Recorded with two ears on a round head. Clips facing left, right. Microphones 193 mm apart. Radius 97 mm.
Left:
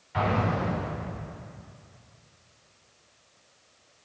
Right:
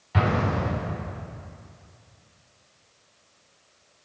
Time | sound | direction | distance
0.1 | an explosion | 60° right (ahead or behind) | 5 m